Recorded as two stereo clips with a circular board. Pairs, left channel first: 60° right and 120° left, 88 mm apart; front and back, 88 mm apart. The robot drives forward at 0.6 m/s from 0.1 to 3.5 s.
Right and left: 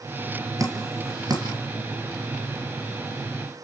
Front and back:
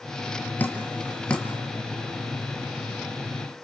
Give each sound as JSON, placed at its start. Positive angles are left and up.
{"t": 0.6, "sound": "dripping", "azimuth_deg": 70, "distance_m": 3.0}